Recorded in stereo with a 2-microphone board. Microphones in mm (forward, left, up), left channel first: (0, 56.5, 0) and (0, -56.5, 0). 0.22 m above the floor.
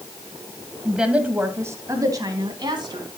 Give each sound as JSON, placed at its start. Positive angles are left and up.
{"t": 0.8, "sound": "a woman speaking", "side_deg": -5, "distance_m": 1.4}